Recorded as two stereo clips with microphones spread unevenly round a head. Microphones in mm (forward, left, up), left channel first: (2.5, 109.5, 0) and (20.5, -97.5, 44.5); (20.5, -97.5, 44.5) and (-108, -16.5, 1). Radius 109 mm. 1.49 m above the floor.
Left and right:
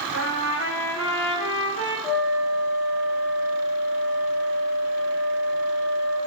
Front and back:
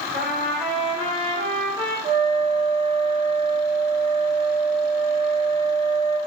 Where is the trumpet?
85° left, 6.5 m.